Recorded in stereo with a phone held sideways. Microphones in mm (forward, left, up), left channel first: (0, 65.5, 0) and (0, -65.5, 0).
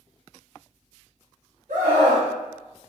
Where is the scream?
85° right, 1.4 m.